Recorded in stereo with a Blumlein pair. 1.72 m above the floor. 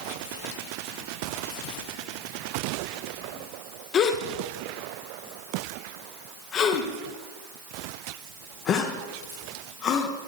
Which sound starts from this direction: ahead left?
A gasp, at 3.9 s.